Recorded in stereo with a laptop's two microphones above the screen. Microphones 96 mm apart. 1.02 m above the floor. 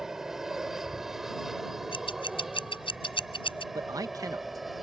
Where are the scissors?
60° left (ahead or behind).